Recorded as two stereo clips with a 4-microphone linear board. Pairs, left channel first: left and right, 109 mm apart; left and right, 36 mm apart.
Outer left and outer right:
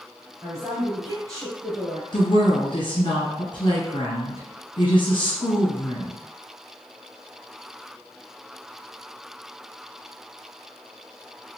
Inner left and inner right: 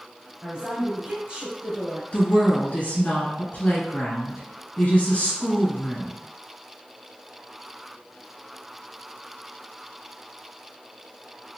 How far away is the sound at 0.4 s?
About 1.9 m.